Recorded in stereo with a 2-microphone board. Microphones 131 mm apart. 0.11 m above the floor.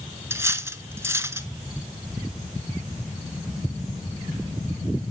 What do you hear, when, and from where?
0.3 s cutlery clinking: 20° right (ahead or behind), 0.6 m